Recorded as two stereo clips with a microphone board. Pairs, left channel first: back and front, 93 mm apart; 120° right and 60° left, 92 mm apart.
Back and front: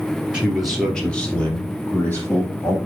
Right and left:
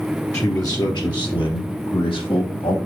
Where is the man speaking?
75° right, 1.9 m; by 2.8 s 115° right, 4.5 m.